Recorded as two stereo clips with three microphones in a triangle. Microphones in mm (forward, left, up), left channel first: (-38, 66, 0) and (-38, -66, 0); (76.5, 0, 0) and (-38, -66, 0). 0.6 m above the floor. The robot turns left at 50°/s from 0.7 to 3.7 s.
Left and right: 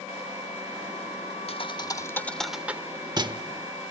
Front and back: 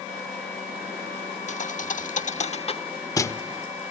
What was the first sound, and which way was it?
A thud, 50° left.